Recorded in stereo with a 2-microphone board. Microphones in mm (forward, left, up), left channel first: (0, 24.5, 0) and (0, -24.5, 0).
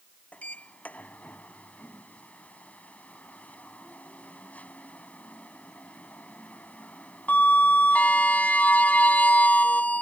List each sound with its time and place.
0.3 s a sliding door: 35° left (ahead or behind)